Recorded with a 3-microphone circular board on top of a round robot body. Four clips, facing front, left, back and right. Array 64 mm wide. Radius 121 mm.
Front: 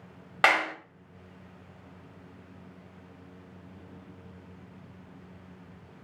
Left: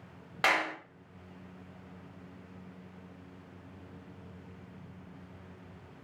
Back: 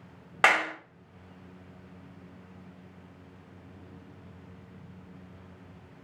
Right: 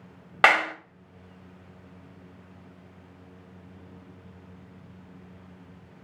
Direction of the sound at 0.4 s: 90° right.